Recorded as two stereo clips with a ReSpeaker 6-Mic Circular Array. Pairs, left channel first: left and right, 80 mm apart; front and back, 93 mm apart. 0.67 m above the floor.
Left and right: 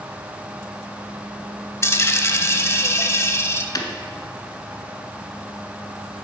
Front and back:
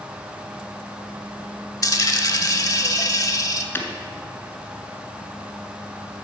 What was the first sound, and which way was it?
A dropped coin, 40° left.